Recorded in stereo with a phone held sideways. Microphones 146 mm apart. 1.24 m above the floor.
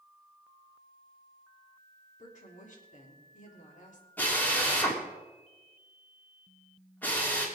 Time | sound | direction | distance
2.2 | a woman speaking | 55° left (ahead or behind) | 3.5 m
4.2 | a drill | 10° left (ahead or behind) | 3 m